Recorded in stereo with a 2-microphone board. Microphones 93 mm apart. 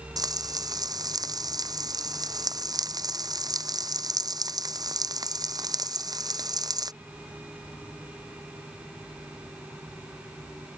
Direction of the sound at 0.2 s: 40° right (ahead or behind).